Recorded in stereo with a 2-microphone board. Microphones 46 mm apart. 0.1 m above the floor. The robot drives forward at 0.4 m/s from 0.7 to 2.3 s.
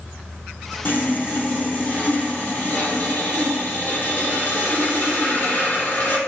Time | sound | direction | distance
0.8 | sawing | 45° left (ahead or behind) | 2 m